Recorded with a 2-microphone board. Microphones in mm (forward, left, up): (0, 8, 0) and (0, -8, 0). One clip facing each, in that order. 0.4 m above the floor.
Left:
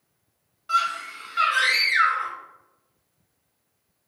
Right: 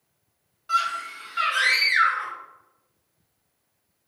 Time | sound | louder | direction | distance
0.7 | a scream | left 1 dB | 5° left (ahead or behind) | 1.7 m